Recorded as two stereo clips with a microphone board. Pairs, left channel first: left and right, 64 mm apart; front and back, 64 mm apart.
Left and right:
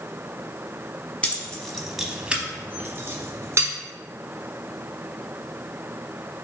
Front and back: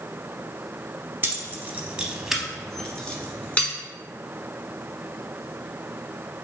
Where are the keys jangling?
150° left, 0.9 m; by 3.7 s 60° right, 1.2 m.